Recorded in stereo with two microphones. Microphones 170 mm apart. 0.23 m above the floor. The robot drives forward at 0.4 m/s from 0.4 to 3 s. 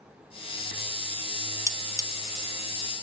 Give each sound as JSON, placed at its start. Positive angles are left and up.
{"t": 1.7, "sound": "cutlery clinking", "side_deg": -20, "distance_m": 0.6}